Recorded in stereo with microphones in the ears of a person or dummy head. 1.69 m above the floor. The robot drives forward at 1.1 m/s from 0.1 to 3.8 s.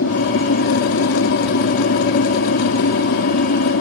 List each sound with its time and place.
0.0 s an aircraft: 70° left (ahead or behind)